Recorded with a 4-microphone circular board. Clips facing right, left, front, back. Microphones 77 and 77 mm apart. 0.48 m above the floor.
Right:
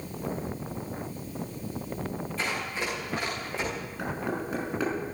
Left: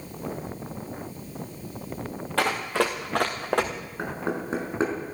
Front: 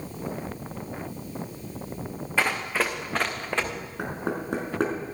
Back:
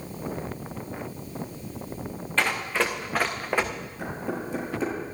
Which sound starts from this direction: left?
Running footsteps, at 2.4 s.